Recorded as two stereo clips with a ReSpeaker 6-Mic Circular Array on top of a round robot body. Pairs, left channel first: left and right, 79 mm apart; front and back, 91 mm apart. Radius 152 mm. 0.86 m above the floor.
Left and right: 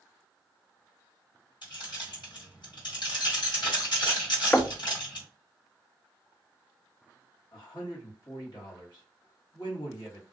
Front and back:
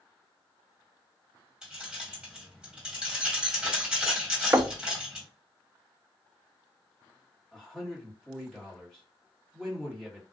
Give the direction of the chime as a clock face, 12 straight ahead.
No chime in this recording.